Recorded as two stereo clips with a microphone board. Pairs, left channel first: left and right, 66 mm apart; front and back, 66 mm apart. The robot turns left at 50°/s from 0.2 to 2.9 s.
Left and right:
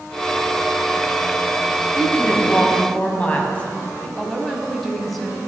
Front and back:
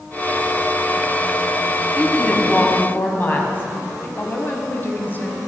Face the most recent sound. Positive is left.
turn(degrees=5)